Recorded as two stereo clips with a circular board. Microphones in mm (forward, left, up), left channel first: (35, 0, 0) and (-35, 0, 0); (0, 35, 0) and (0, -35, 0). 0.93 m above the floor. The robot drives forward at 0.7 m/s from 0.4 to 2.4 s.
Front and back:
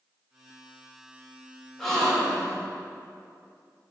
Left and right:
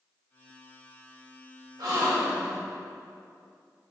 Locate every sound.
1.8 s a gasp: 85° right, 1.2 m; by 2.6 s 105° right, 1.2 m